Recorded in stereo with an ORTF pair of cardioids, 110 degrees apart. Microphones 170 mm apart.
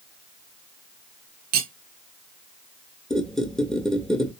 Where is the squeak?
5° left, 0.6 m.